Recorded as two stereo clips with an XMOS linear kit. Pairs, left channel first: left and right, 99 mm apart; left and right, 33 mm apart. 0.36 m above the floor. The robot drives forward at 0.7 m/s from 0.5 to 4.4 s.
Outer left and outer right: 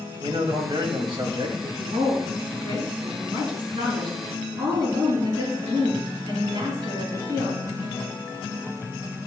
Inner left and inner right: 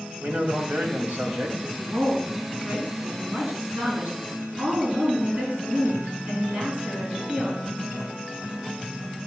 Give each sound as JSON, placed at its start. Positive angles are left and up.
{"t": 0.2, "sound": "a man speaking", "side_deg": -60, "distance_m": 1.8}
{"t": 1.8, "sound": "a woman speaking", "side_deg": -65, "distance_m": 3.5}